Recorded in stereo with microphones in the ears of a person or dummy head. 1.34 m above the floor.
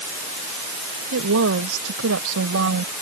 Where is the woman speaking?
80° right; by 2.9 s 90° right.